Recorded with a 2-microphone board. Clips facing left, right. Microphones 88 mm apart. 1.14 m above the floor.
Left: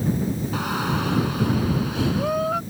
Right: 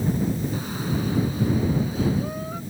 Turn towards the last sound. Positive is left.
turn(degrees=85)